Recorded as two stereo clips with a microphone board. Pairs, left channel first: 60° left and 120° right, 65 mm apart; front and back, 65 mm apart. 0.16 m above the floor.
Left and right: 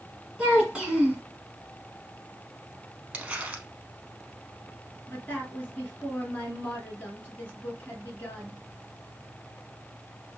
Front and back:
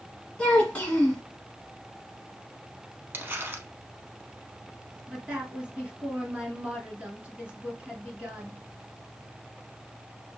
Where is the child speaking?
55° right, 1.3 m.